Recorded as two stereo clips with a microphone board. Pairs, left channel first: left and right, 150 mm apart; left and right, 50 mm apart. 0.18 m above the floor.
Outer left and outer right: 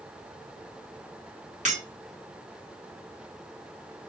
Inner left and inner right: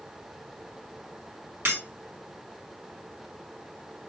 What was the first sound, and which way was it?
Breaking glass, 55° right (ahead or behind).